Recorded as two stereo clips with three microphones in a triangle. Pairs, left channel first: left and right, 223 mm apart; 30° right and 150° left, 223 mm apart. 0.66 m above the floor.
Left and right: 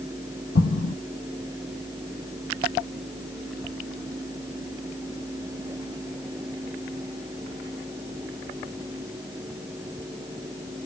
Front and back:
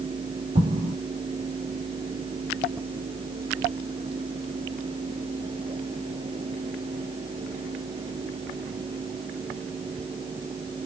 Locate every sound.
0.6 s an explosion: 95° left, 3 m